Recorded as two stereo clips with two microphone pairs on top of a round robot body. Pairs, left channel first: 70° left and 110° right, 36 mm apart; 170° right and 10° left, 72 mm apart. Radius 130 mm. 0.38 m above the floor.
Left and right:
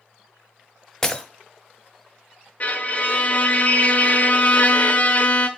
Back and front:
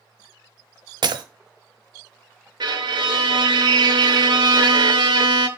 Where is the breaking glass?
10° right, 0.7 m.